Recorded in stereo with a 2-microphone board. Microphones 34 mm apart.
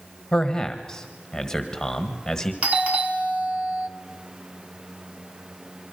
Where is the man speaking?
15° left (ahead or behind), 1.5 m.